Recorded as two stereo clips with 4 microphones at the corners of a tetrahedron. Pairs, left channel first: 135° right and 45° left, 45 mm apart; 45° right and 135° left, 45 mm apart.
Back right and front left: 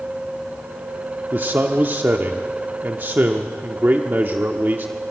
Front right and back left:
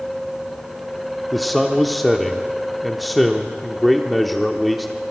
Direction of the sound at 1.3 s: 40° left.